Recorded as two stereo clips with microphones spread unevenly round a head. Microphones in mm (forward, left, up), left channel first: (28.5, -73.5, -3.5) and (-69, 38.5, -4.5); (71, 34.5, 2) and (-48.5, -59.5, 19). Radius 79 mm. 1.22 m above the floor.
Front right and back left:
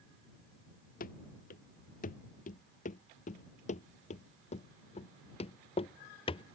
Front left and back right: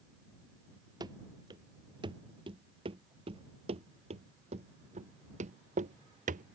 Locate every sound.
1.0 s running footsteps: 80° right; by 6.5 s 105° right